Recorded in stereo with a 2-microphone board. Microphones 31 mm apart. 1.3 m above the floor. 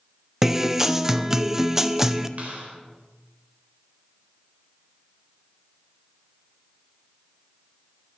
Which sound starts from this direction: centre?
A guitar, at 0.4 s.